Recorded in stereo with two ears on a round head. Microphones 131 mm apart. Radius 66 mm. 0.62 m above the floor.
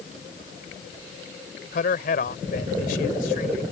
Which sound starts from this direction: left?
A man speaking, at 1.7 s.